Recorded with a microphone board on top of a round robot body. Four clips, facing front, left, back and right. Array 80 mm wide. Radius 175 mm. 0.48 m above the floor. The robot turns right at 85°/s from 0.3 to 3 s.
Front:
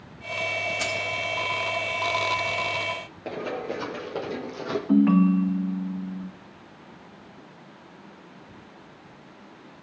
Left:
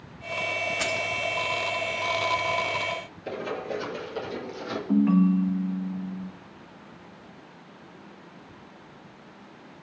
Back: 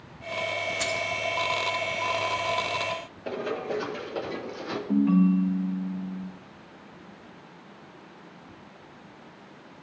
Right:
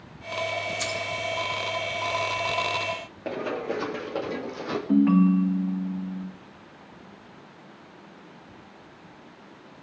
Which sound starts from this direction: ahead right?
Running footsteps, at 3.2 s.